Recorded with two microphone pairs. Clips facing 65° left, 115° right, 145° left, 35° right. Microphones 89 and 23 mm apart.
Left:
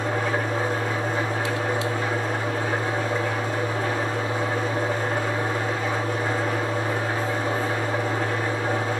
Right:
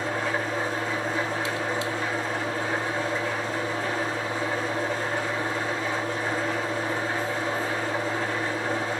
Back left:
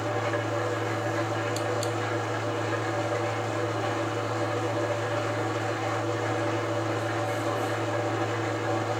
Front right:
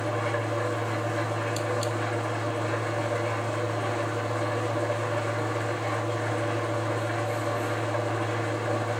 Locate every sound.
0.0 s an engine running: 100° left, 10 m